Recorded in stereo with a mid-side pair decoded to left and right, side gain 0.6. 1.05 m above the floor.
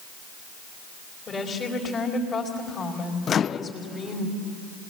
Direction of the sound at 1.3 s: 25° left.